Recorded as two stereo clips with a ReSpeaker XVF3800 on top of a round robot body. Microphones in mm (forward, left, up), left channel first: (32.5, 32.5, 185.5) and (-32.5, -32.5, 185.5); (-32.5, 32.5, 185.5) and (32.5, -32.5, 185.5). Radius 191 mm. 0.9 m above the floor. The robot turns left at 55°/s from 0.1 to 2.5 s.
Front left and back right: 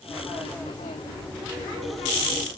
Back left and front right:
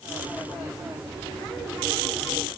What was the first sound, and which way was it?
Only background noise.